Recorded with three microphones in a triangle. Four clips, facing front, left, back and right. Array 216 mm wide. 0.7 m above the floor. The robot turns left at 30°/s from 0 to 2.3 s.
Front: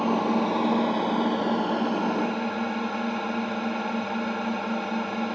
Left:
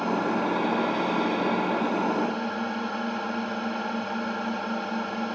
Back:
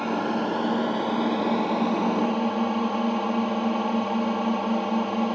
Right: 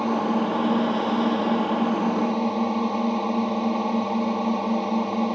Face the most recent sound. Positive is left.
turn(degrees=-125)